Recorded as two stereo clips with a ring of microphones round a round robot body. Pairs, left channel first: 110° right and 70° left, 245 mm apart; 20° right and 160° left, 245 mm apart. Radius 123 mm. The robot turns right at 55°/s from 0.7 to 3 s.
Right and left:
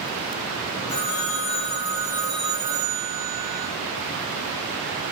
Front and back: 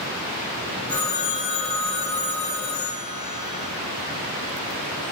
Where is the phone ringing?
95° right, 5 m; by 3.7 s 20° left, 5 m.